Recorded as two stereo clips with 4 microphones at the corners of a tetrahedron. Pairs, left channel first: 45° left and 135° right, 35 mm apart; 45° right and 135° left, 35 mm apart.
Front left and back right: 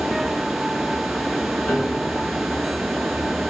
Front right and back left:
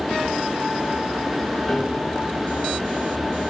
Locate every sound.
1.7 s a piano: 25° left, 3.5 m